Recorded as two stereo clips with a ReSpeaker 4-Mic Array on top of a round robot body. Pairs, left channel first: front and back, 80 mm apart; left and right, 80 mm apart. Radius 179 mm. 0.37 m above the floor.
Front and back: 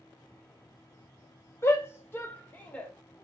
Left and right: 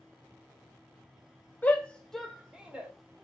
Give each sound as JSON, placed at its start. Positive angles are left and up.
{"t": 1.6, "sound": "a shout", "azimuth_deg": 30, "distance_m": 1.1}